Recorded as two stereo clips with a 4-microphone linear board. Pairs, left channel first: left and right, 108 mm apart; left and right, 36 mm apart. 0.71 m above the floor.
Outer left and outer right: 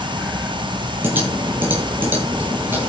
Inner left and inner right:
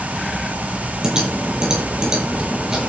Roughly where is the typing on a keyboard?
Right.